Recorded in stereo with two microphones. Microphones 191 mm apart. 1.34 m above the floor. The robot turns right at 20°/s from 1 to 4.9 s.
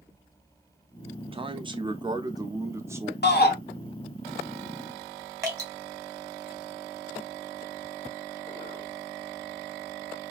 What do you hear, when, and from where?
1.3 s a man speaking: 55° right, 0.5 m; by 3.1 s 20° right, 0.5 m
3.2 s a shout: 60° left (ahead or behind), 0.8 m; by 3.5 s 55° left (ahead or behind), 0.8 m
5.4 s dripping: 15° right (ahead or behind), 1.2 m